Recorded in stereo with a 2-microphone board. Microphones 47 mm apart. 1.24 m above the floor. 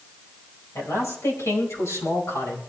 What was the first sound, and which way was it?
A man speaking, 75° left (ahead or behind).